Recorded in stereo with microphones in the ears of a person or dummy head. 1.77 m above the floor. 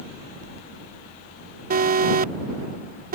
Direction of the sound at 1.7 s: 45° right (ahead or behind).